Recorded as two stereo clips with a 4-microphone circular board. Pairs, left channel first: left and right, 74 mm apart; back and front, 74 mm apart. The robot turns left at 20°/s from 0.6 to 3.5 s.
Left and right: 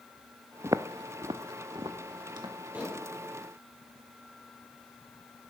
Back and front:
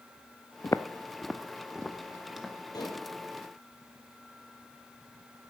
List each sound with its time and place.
0.6 s footsteps: 135° right, 0.6 m; by 2.5 s 85° right, 2.0 m
2.7 s dishes clattering: 160° right, 2.5 m; by 3.1 s 165° right, 2.5 m